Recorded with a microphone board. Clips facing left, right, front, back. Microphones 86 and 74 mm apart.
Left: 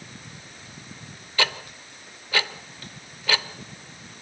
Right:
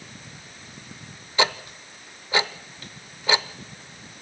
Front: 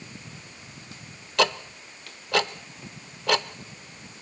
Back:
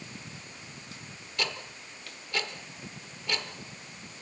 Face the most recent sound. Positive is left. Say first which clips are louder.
# right 3 dB, front 12 dB
turn(degrees=-20)